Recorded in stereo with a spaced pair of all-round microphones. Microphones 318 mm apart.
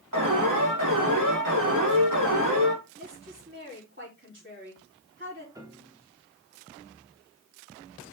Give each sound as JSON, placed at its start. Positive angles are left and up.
{"t": 0.1, "sound": "an alarm", "side_deg": -75, "distance_m": 3.5}
{"t": 3.0, "sound": "a woman speaking", "side_deg": -35, "distance_m": 4.5}
{"t": 5.5, "sound": "a piano", "side_deg": -10, "distance_m": 1.7}